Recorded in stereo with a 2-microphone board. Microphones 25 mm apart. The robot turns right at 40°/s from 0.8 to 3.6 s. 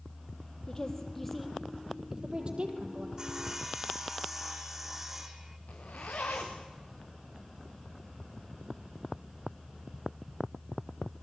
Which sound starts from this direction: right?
Sawing, at 3.2 s.